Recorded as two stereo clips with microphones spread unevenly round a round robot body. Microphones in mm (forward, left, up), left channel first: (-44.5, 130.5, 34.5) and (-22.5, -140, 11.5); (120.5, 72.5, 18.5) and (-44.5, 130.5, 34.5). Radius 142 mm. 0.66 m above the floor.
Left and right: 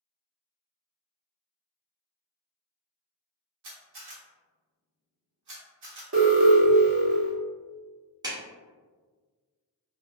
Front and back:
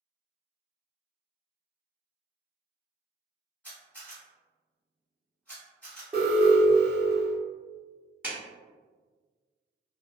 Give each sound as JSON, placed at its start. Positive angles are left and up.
{"t": 3.6, "sound": "a camera shutter", "azimuth_deg": -105, "distance_m": 1.3}
{"t": 6.1, "sound": "an alarm", "azimuth_deg": -120, "distance_m": 0.7}
{"t": 8.2, "sound": "a clap", "azimuth_deg": -120, "distance_m": 0.9}